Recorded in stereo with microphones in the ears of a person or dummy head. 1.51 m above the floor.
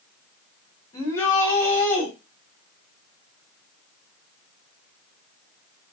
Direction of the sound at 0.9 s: 20° left (ahead or behind).